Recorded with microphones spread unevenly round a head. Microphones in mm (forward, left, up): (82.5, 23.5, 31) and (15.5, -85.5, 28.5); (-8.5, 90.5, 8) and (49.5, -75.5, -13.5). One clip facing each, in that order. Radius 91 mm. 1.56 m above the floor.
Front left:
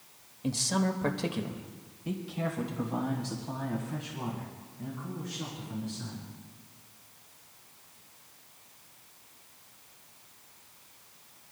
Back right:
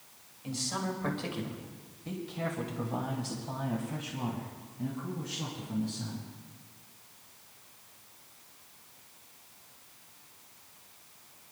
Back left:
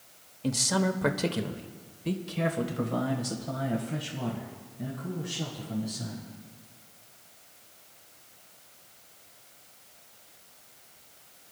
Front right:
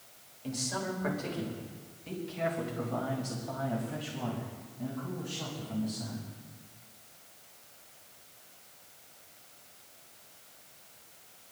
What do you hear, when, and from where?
0.4 s a man speaking: 95° left, 1.2 m; by 6.3 s straight behind, 3 m